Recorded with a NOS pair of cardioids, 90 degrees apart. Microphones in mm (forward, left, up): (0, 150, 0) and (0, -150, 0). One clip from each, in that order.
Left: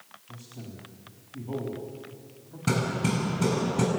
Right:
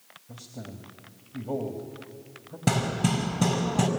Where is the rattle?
I don't hear a rattle.